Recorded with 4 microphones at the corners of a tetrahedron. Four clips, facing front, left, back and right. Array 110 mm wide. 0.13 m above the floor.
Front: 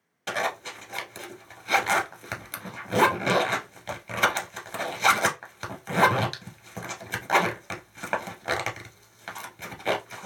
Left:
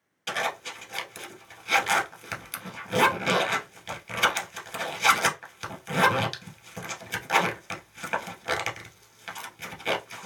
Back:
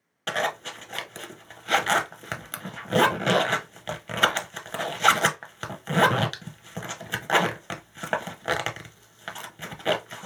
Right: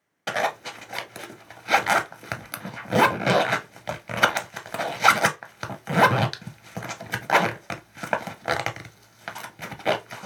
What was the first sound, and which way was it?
A zipper, 110° right.